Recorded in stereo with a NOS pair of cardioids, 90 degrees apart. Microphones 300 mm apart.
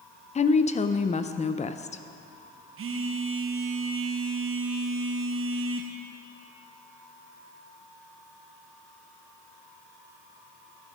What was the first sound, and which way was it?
A woman speaking, 25° left.